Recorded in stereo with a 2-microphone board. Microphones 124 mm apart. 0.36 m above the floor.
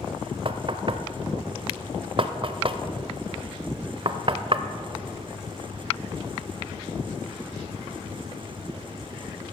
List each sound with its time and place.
0.5 s knocking: 45° right (ahead or behind), 0.8 m